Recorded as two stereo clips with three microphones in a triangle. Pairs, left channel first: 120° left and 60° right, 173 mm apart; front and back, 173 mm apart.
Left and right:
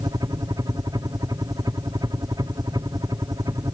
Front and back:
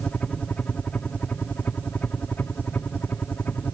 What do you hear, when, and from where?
0.0 s a helicopter: 70° right; by 3.8 s 60° right